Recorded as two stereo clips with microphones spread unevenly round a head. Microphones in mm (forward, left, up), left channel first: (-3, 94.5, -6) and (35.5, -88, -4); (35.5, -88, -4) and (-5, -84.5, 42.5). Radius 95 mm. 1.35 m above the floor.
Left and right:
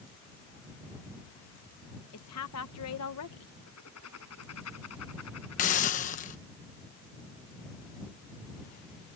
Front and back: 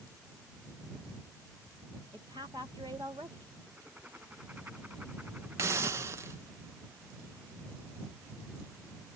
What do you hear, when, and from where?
2.1 s a woman speaking: 115° left
3.7 s writing: 100° left
5.6 s a hiss: 155° left